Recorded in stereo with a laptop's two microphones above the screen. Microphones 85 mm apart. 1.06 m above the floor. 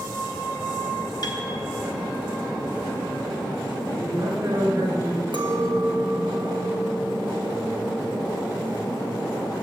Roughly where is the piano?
Left.